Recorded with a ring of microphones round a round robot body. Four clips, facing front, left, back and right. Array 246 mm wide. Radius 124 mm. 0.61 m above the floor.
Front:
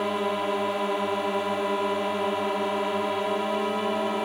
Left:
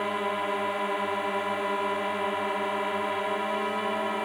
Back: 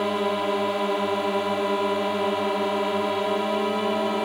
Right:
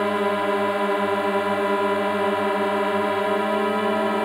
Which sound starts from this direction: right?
A drone, at 0.0 s.